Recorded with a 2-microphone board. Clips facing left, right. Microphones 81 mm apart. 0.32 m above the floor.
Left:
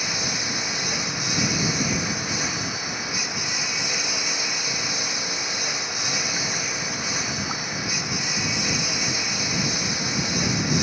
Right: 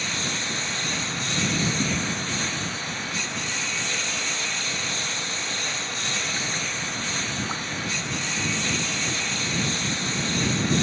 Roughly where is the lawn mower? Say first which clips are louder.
Left 1 dB; centre.